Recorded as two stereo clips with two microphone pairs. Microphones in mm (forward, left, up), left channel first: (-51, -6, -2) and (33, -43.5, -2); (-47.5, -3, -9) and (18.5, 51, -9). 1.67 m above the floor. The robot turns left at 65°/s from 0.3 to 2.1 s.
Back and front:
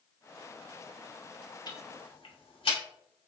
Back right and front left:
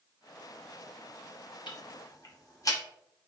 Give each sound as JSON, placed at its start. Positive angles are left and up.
{"t": 1.7, "sound": "ticking", "azimuth_deg": -160, "distance_m": 0.7}